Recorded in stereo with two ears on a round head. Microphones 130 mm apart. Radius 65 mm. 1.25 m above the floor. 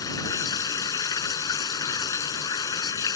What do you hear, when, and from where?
0.0 s running water: 25° left (ahead or behind)